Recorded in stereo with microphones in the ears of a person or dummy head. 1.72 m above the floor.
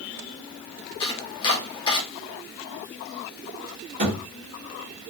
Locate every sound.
1.0 s chopping: 30° left (ahead or behind), 1.1 m
4.0 s a thud: 35° right (ahead or behind), 1.3 m